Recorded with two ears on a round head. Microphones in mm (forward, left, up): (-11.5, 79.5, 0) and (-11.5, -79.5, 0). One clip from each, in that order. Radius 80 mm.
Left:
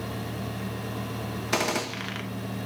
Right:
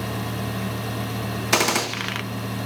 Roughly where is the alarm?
No alarm in this recording.